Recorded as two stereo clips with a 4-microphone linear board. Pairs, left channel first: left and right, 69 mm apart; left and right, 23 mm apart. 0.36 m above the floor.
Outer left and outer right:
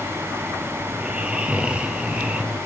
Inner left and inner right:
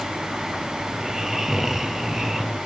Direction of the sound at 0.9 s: 15° right (ahead or behind).